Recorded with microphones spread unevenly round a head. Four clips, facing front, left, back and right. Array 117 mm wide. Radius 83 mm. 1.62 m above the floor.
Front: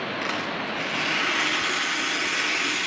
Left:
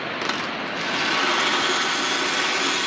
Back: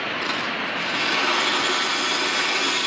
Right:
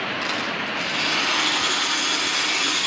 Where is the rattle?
75° left, 1.4 m.